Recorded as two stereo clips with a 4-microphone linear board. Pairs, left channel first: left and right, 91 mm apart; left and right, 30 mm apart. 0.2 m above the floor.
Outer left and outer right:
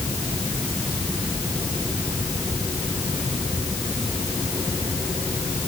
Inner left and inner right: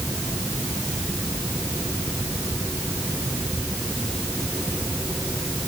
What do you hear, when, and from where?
Only background noise.